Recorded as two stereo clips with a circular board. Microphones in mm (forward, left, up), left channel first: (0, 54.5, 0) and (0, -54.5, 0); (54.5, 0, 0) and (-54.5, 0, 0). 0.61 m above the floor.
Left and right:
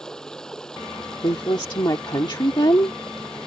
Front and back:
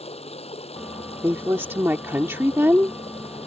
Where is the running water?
5° left.